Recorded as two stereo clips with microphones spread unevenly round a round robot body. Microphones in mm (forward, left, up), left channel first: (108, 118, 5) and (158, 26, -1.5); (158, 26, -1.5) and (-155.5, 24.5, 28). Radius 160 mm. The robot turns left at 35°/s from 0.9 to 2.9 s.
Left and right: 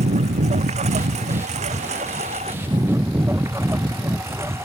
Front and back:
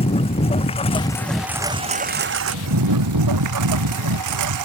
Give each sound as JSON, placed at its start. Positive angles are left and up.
{"t": 0.0, "sound": "a lawn mower", "azimuth_deg": -75}